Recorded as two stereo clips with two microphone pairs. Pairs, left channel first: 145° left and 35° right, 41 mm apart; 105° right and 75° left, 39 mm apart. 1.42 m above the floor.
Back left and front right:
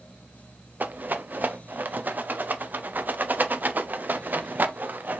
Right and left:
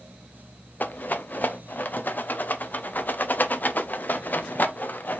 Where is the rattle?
70° right, 0.6 m.